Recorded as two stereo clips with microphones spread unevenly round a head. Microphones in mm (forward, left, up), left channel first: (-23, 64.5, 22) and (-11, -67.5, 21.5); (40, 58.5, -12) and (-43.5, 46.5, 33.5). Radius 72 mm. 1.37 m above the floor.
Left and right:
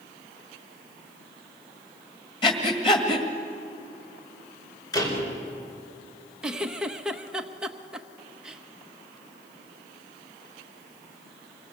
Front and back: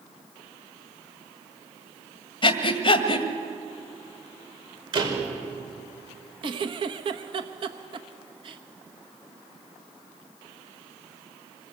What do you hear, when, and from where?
2.4 s breathing: 35° left, 2 m
4.9 s a door slam: 160° left, 5 m
6.4 s a giggle: 170° right, 1.1 m